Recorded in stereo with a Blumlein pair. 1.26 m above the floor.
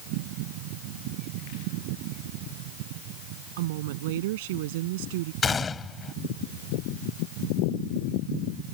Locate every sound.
3.6 s a woman speaking: 55° right; by 5.3 s 50° right
5.4 s a gunshot: 15° left